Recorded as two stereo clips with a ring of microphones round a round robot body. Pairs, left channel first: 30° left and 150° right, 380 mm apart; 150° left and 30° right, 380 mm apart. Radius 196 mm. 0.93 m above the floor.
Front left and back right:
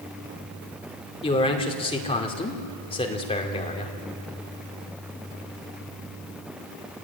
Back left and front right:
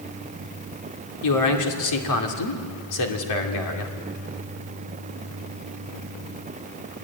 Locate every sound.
1.2 s a man speaking: 105° left, 3 m